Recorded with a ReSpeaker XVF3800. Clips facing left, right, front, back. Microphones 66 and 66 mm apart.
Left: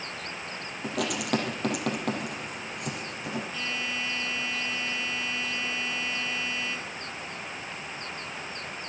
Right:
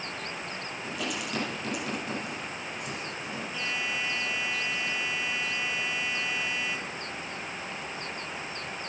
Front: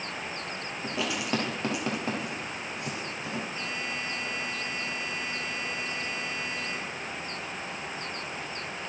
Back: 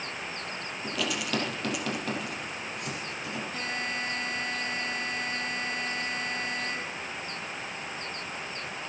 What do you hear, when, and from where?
0.8 s writing: 65° left, 4.5 m
3.5 s a buzzer: 170° right, 4 m